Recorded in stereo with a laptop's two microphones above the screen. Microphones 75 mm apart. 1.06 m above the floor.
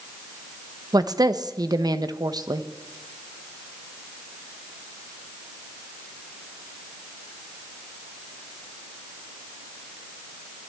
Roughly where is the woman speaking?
Right.